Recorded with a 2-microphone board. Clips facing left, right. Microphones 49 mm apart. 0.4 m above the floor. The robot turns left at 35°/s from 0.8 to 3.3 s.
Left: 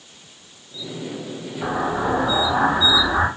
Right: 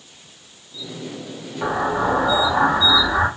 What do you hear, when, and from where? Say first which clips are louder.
1.6 s an explosion: right 2 dB; 25° right (ahead or behind), 1.0 m; by 3.3 s 15° right (ahead or behind), 1.0 m